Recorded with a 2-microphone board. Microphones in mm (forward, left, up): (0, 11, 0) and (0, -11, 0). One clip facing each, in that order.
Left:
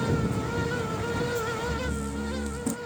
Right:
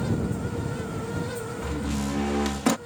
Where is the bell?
No bell in this recording.